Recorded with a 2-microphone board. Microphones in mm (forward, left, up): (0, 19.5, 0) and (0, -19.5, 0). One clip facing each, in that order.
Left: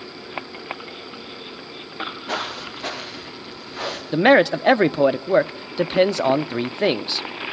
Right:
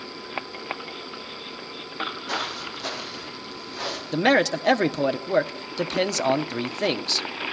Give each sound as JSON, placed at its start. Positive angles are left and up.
{"t": 2.3, "sound": "footsteps", "side_deg": 30, "distance_m": 7.0}
{"t": 4.1, "sound": "a man speaking", "side_deg": 20, "distance_m": 0.6}